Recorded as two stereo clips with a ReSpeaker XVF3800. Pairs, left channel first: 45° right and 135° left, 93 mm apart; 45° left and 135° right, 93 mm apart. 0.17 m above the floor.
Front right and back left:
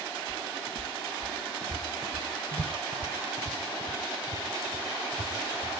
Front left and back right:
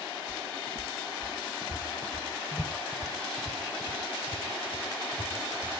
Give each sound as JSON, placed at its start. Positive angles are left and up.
{"t": 0.3, "sound": "footsteps", "azimuth_deg": 35, "distance_m": 1.5}